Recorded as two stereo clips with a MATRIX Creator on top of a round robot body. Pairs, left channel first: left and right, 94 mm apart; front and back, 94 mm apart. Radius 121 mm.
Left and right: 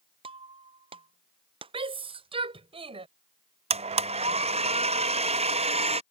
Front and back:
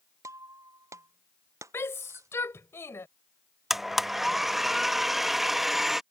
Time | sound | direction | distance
0.2 | breaking glass | 120° right | ?
1.7 | a shout | 65° right | ?
3.7 | a blender | 90° right | ?